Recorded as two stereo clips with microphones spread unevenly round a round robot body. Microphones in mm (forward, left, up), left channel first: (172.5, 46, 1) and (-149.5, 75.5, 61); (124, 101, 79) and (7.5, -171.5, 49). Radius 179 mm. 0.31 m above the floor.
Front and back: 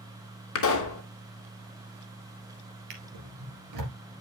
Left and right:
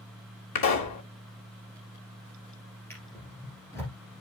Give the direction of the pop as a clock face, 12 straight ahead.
11 o'clock.